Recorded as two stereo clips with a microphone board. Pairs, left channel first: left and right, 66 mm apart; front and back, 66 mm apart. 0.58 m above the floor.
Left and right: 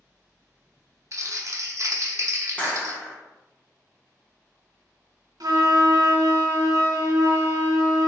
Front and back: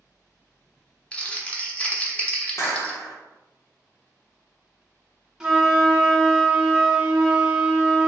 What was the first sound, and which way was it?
Crumpling, 65° right.